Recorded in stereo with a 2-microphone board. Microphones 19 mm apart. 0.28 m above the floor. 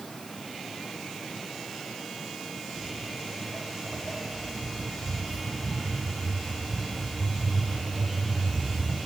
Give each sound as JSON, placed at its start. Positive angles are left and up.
{"t": 2.7, "sound": "footsteps", "side_deg": -5, "distance_m": 1.1}